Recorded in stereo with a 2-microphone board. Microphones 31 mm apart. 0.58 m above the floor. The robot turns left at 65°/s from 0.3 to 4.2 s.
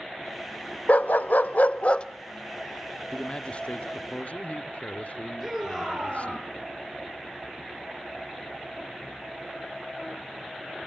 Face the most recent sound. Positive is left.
turn(degrees=-20)  # may be behind; listen again after turning